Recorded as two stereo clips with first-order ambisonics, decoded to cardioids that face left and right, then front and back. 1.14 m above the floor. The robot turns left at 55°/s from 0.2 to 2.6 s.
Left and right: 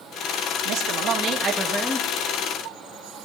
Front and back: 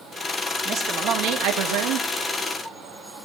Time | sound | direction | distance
0.7 | a man speaking | 120° right | 1.4 m